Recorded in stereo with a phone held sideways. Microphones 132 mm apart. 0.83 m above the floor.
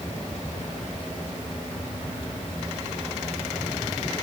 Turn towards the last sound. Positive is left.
No sound to turn to.